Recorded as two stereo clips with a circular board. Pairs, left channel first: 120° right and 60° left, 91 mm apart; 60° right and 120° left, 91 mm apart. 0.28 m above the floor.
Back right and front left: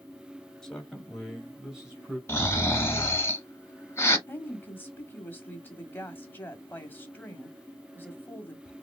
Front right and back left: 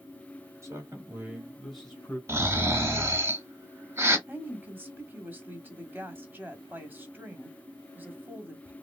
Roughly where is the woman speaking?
Behind.